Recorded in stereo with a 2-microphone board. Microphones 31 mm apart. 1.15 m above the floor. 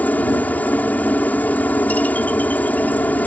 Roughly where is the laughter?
No laughter in this recording.